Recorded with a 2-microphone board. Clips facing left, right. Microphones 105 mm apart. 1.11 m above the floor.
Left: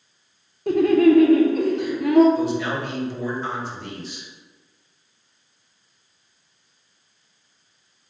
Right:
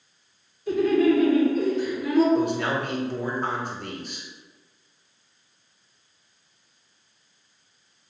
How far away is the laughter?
About 0.6 m.